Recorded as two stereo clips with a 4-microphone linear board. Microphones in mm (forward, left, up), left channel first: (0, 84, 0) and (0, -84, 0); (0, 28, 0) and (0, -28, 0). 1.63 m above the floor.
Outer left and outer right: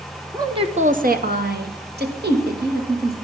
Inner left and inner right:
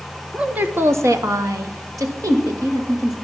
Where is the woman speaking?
20° right (ahead or behind), 0.8 m; by 3.1 s 70° right (ahead or behind), 2.5 m.